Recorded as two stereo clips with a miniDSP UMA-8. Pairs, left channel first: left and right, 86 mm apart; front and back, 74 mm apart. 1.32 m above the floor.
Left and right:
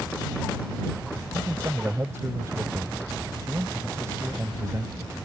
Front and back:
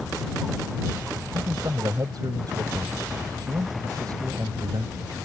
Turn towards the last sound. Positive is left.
turn(degrees=-150)